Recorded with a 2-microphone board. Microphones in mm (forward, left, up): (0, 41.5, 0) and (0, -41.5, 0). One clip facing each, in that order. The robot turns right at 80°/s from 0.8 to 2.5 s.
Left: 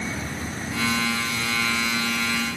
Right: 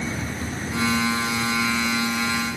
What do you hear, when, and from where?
Only background noise.